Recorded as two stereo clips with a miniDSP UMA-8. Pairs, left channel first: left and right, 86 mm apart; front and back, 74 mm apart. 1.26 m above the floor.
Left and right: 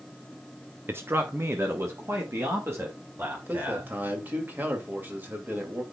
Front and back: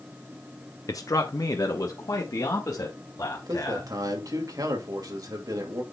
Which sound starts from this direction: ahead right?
A man speaking, at 0.9 s.